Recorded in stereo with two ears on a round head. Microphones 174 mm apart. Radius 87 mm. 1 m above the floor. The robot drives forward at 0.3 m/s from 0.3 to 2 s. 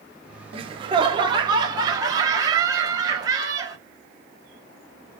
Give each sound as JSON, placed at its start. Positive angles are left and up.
{"t": 0.5, "sound": "laughter", "side_deg": -30, "distance_m": 0.8}